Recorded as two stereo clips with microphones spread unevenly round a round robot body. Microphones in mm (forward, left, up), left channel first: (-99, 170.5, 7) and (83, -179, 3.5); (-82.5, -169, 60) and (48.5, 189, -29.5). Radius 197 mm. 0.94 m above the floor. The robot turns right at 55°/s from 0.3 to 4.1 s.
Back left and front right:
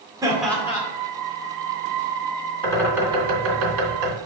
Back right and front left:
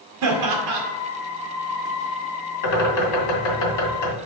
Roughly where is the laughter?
Ahead.